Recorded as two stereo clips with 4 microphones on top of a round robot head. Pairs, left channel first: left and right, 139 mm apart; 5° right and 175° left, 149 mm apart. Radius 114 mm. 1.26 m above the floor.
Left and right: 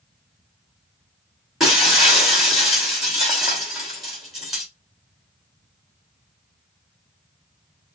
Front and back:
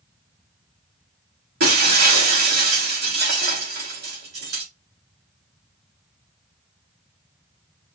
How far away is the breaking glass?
About 3.5 m.